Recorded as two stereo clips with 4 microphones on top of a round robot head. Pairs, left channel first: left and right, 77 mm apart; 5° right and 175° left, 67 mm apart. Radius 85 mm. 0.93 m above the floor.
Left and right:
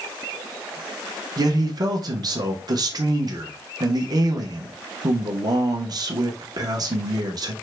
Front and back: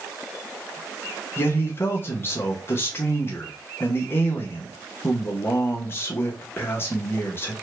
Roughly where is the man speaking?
Ahead right.